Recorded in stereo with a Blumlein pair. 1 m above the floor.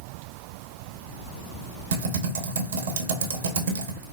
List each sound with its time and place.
1.9 s typing on a keyboard: 60° right, 0.9 m